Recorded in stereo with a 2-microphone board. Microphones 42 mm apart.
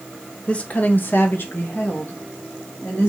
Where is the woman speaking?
30° left (ahead or behind), 0.7 m; by 3.1 s 45° left (ahead or behind), 1.6 m.